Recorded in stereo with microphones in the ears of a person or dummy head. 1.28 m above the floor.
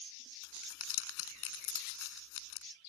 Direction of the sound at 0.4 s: 70° left (ahead or behind).